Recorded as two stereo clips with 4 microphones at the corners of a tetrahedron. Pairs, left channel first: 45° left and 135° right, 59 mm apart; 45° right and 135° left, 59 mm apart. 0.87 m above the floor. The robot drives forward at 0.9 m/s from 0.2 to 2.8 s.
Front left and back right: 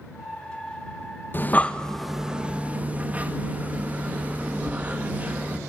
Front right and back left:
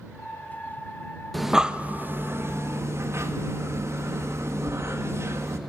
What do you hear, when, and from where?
1.3 s breathing: 40° left, 0.8 m; by 5.6 s 165° left, 1.2 m